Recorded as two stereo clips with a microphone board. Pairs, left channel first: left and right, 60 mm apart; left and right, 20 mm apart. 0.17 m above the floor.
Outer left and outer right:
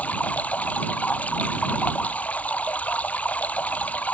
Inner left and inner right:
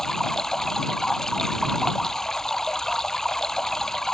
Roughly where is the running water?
Left.